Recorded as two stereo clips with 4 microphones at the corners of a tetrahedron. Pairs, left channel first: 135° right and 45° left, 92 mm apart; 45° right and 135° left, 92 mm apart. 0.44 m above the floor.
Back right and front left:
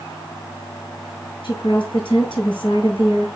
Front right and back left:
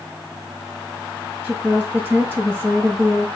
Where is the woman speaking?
155° right, 7.5 m.